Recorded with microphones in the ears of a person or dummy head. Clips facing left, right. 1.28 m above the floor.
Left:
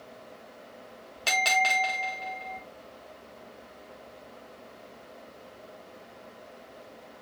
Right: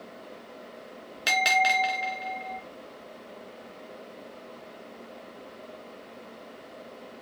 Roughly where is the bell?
Centre.